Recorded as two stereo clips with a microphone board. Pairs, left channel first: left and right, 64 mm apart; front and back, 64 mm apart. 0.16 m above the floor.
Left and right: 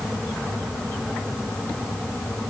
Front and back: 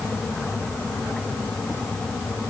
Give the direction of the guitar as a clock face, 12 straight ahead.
No guitar in this recording.